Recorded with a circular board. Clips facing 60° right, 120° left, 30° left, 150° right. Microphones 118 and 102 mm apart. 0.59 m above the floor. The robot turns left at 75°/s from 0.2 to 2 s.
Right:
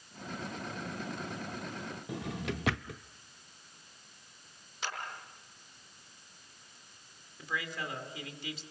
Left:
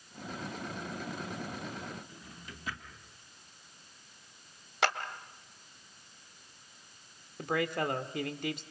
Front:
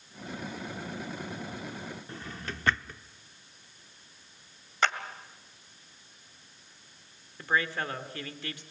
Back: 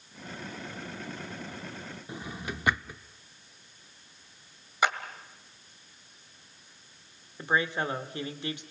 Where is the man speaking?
145° left, 1.8 m.